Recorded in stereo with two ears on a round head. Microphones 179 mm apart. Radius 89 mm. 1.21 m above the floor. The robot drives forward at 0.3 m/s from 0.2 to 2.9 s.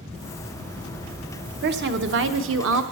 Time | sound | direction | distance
1.6 | a woman speaking | 55° right (ahead or behind) | 0.9 m